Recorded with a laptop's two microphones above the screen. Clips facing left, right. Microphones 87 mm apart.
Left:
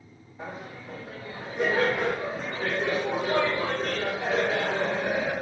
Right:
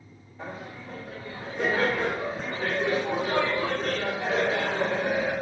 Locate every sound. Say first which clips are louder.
0.4 s laughter: even; 20° left (ahead or behind), 0.7 m